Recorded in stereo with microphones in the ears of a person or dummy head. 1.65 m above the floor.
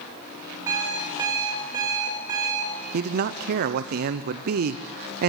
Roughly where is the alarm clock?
Centre.